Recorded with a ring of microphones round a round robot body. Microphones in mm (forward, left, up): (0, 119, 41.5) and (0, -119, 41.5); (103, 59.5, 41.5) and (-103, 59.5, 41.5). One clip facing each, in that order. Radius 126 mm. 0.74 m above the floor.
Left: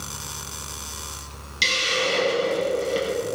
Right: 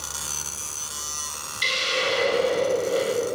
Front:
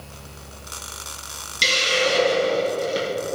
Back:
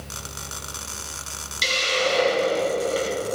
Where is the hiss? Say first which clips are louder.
Left 1 dB, front 2 dB; 60° left, 5 m.